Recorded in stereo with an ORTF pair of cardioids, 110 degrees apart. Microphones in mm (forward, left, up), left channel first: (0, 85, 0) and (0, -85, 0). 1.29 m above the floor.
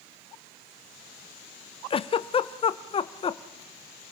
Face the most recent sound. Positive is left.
turn(degrees=30)